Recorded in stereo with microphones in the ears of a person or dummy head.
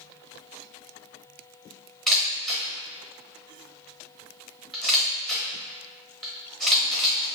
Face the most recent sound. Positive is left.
turn(degrees=5)  # may be behind; listen again after turning